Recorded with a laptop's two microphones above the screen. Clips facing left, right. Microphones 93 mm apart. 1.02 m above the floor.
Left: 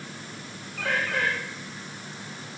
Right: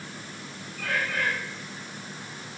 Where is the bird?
70° left (ahead or behind), 9.5 m.